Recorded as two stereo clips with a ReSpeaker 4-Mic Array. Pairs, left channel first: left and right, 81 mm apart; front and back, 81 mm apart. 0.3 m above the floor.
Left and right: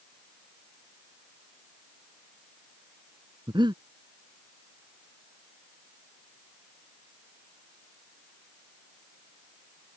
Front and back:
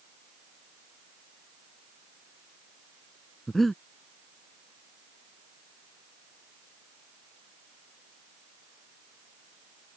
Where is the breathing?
90° right.